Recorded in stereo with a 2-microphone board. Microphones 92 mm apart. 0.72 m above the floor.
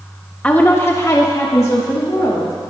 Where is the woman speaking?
15° left (ahead or behind), 0.9 m; by 2.5 s 30° left (ahead or behind), 2.5 m.